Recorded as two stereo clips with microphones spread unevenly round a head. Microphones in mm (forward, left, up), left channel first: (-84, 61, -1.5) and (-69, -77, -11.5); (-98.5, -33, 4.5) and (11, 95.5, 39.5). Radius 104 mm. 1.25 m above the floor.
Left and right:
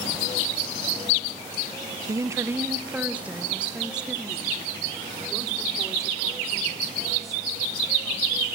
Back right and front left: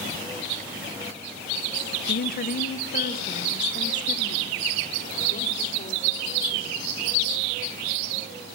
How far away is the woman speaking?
About 0.9 m.